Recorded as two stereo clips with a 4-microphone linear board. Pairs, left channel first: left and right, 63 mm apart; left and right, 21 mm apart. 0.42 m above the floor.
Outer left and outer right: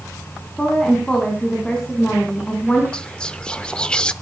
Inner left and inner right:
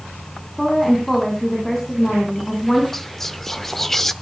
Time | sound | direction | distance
0.6 | a woman speaking | 15° left (ahead or behind) | 3 m
2.9 | whispering | 15° left (ahead or behind) | 0.8 m